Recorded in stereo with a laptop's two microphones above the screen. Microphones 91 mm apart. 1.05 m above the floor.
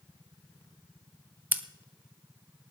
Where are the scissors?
20° right (ahead or behind), 1.0 m.